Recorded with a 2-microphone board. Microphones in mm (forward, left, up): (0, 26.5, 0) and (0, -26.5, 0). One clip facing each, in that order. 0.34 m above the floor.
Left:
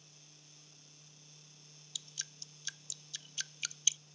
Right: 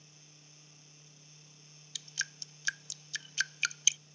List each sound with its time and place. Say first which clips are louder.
1.9 s dripping: right 11 dB; 65° right (ahead or behind)